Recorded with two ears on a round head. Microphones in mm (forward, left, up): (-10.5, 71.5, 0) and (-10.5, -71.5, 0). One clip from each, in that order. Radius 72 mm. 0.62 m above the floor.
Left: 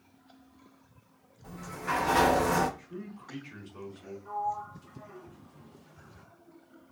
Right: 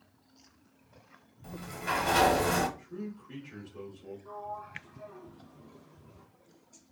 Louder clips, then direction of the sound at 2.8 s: Right 1 dB; 20° left (ahead or behind).